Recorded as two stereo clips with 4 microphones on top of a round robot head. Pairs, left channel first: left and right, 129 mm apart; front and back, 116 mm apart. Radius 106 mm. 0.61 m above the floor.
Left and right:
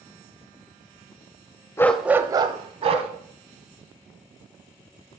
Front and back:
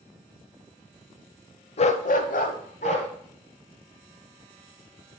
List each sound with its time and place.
1.8 s a dog barking: 25° left, 0.5 m; by 3.1 s 50° right, 1.2 m